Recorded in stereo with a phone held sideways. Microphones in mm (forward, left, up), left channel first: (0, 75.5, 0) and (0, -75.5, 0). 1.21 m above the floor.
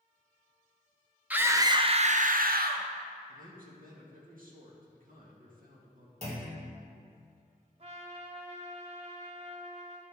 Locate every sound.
1.3 s a scream: 10° right (ahead or behind), 0.8 m; by 2.9 s 85° right, 0.9 m
3.3 s a man speaking: 65° right (ahead or behind), 1.8 m
6.2 s a clunk: 45° right (ahead or behind), 2.5 m
7.8 s a trumpet: 45° right (ahead or behind), 1.2 m